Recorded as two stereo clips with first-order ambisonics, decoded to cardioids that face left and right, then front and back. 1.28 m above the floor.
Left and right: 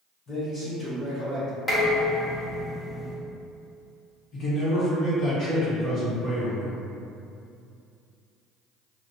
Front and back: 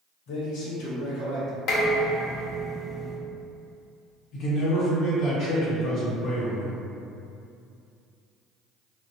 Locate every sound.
0.3 s a man speaking: 25° left, 1.0 m; by 1.6 s 45° right, 1.0 m
1.7 s dishes clattering: 20° left, 0.5 m
4.3 s a man speaking: 45° left, 1.3 m